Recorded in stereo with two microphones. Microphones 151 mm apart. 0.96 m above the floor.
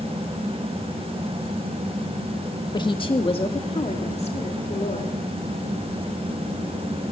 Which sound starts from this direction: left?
A woman speaking, at 2.7 s.